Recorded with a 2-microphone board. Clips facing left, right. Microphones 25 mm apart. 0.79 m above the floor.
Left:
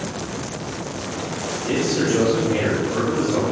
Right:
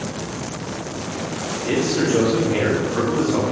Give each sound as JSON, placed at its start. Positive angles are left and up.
{"t": 1.6, "sound": "a man speaking", "side_deg": -25, "distance_m": 1.4}